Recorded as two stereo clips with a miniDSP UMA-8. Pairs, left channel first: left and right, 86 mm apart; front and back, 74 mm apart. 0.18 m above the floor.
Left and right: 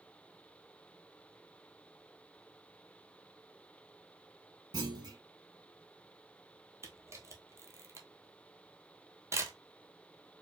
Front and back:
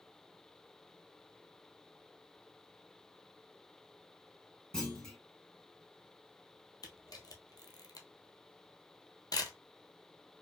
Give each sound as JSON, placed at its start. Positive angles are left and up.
{"t": 4.7, "sound": "a clunk", "azimuth_deg": -80, "distance_m": 1.5}
{"t": 6.8, "sound": "a camera shutter", "azimuth_deg": -30, "distance_m": 0.9}